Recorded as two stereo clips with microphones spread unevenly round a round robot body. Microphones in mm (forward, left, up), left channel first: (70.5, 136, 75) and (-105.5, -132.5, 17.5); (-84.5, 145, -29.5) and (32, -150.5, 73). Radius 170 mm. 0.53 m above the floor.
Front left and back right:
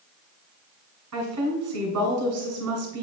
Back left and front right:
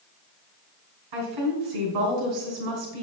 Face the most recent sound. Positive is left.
turn(degrees=-90)